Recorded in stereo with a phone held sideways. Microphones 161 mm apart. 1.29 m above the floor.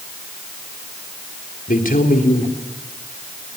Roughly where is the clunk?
No clunk in this recording.